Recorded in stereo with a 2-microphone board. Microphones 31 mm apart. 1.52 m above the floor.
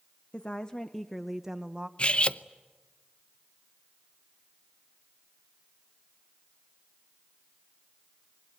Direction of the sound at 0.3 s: 35° left (ahead or behind).